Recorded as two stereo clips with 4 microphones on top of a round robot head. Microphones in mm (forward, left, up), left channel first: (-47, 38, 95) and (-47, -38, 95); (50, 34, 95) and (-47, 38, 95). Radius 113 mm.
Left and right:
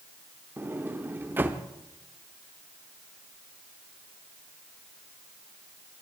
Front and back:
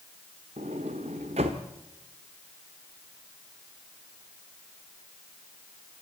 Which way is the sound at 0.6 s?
150° right.